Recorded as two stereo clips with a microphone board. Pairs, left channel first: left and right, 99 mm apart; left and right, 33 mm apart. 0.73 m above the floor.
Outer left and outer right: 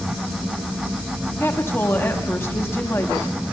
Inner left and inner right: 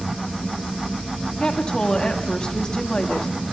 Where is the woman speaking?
25° left (ahead or behind), 1.2 m.